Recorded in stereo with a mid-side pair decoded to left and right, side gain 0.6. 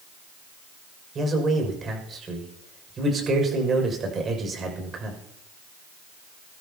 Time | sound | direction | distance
1.1 | a man speaking | 35° right | 6.5 m